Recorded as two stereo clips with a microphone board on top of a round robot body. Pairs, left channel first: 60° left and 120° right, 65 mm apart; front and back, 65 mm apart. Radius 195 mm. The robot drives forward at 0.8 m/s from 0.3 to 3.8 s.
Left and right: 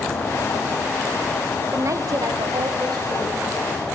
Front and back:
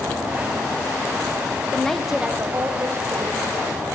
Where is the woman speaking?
75° right, 0.8 m; by 3.9 s 155° right, 1.6 m.